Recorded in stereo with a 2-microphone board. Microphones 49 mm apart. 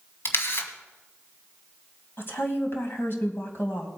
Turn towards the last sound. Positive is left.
turn(degrees=50)  # may be behind; listen again after turning